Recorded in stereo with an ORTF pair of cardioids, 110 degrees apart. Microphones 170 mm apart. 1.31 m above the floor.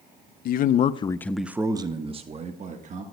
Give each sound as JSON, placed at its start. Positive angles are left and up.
{"t": 0.5, "sound": "a man speaking", "azimuth_deg": 65, "distance_m": 0.7}